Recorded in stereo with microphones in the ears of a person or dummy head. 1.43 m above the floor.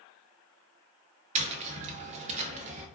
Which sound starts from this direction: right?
Tapping, at 1.4 s.